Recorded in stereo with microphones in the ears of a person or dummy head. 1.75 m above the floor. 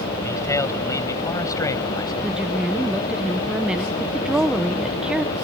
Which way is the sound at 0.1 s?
15° left (ahead or behind).